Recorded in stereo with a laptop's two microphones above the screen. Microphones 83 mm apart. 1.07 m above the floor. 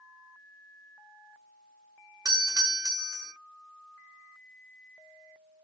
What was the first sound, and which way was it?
A doorbell, 45° right (ahead or behind).